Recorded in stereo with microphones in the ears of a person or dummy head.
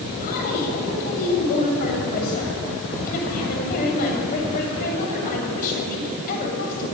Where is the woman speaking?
50° left (ahead or behind), 7.5 m.